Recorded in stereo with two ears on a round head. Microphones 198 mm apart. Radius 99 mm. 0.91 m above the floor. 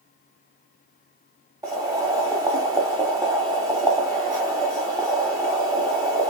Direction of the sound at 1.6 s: 15° right (ahead or behind).